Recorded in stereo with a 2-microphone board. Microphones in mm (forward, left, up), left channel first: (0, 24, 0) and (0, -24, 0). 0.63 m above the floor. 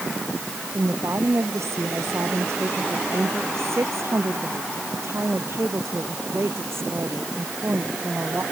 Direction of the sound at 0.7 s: 70° right (ahead or behind).